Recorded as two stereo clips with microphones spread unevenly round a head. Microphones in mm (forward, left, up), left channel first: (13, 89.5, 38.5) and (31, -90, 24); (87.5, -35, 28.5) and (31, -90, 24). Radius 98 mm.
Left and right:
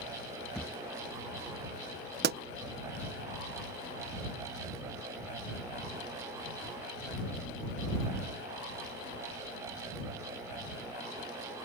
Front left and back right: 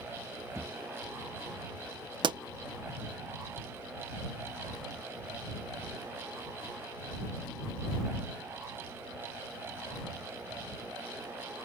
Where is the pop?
125° right.